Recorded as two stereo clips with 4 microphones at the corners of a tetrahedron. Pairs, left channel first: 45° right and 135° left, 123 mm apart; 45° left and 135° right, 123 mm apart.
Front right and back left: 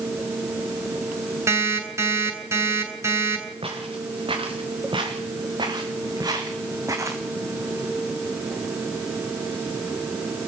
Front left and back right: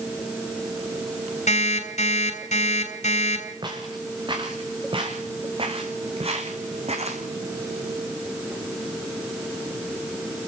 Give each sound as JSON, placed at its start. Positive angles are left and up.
{"t": 1.5, "sound": "an alarm clock", "azimuth_deg": 70, "distance_m": 7.0}
{"t": 3.6, "sound": "footsteps", "azimuth_deg": 175, "distance_m": 5.0}